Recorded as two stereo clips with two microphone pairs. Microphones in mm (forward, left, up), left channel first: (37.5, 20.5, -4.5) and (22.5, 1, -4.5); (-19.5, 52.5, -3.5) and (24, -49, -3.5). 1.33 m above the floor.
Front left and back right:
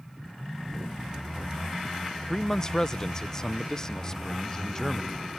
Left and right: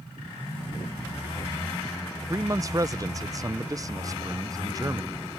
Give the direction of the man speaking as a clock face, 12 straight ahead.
12 o'clock.